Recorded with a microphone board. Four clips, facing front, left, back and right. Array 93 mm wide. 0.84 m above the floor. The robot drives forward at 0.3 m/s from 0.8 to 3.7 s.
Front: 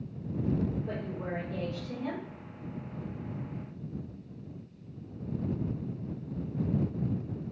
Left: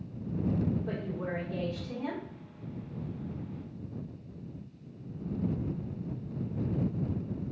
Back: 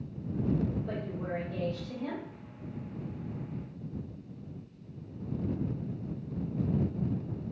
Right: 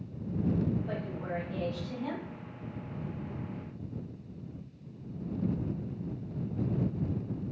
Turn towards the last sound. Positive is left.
turn(degrees=100)